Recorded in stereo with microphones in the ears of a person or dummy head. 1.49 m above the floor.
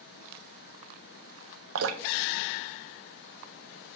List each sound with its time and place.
1.8 s dripping: 85° right, 0.5 m